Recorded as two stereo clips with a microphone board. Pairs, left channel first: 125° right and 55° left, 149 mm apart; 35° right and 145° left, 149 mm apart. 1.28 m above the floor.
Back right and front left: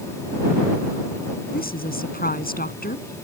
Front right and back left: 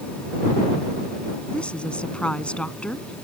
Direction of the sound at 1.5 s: 115° right.